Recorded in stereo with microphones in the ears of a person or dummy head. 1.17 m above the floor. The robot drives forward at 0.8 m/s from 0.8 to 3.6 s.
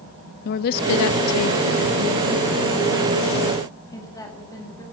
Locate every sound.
0.5 s a woman speaking: 60° left (ahead or behind), 0.6 m; by 4.8 s 15° left (ahead or behind), 2 m